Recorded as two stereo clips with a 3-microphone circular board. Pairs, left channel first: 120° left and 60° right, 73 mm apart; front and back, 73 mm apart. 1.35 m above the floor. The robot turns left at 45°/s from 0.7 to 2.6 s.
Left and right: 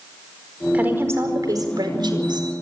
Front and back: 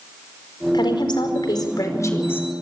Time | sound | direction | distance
0.7 | a woman speaking | 10° left | 4.5 m